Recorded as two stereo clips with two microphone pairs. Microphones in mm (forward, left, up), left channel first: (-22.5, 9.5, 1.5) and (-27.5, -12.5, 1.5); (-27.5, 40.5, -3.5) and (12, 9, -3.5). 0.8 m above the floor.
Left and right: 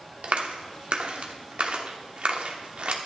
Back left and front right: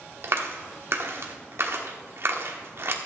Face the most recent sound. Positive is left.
turn(degrees=-75)